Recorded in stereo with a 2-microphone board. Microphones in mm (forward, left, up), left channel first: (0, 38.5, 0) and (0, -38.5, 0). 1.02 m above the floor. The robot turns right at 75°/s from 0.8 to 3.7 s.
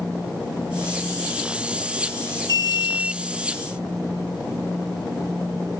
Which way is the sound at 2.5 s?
60° right.